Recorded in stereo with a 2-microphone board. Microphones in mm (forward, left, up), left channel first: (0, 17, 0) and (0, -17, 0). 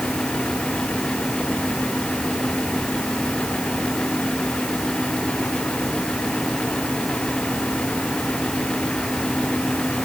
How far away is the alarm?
I don't hear an alarm.